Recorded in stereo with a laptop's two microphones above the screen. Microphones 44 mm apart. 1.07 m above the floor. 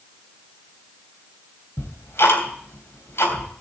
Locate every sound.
1.8 s ticking: 65° left (ahead or behind), 3 m